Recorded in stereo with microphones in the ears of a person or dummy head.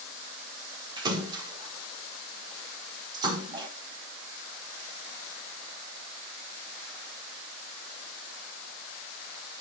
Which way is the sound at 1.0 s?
25° right (ahead or behind).